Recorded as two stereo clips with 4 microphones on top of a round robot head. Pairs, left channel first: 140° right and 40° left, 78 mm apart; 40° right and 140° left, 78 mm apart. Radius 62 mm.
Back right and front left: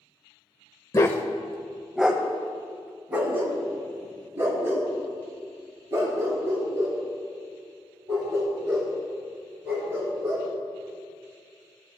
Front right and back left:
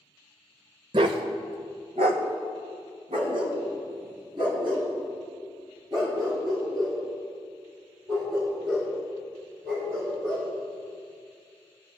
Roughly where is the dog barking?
Behind.